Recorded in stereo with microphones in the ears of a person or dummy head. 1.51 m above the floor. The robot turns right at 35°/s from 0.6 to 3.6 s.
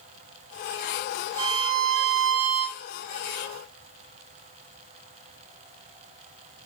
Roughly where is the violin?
Behind right.